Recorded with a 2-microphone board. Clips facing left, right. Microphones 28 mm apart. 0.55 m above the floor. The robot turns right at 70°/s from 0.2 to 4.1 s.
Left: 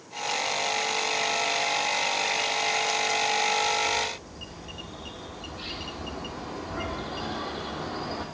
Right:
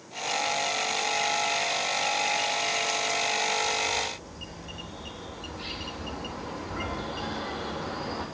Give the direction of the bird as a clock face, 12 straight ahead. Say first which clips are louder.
Left 2 dB; 8 o'clock.